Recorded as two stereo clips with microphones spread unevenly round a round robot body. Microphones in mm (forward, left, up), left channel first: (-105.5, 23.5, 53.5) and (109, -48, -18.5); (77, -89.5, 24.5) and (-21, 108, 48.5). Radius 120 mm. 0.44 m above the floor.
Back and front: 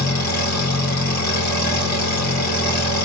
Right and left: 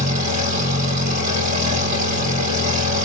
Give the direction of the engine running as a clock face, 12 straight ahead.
7 o'clock.